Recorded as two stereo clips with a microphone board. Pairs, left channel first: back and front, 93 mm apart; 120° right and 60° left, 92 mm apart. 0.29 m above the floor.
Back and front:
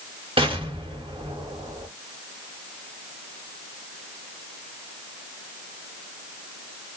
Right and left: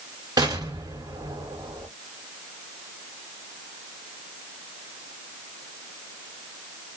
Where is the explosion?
15° left, 1.4 m.